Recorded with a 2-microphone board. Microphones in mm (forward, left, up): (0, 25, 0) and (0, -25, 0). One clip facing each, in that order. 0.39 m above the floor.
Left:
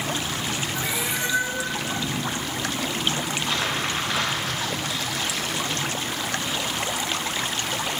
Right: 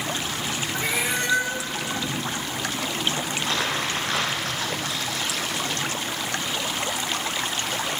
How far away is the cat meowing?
About 2.5 m.